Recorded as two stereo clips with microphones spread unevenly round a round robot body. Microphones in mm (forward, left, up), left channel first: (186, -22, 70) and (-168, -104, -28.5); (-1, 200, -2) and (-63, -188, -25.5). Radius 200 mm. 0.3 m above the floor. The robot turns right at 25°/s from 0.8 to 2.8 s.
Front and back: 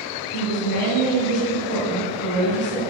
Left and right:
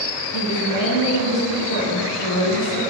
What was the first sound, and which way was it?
A woman speaking, 20° left.